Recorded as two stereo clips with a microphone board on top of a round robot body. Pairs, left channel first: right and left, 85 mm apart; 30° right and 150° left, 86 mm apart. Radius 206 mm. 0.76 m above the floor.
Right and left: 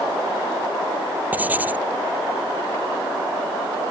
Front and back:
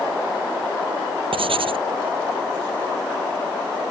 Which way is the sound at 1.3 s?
165° left.